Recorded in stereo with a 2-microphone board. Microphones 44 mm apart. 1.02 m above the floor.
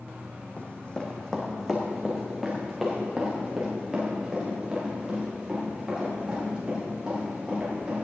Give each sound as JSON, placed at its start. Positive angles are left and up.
{"t": 0.6, "sound": "running footsteps", "side_deg": 35, "distance_m": 1.9}